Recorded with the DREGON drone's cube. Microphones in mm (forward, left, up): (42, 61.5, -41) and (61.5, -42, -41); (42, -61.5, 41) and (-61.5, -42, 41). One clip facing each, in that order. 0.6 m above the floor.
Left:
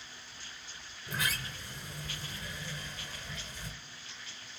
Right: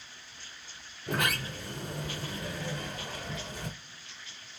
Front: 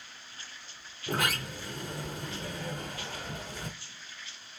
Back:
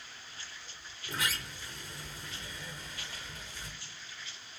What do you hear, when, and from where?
1.1 s a sliding door: 45° right, 0.6 m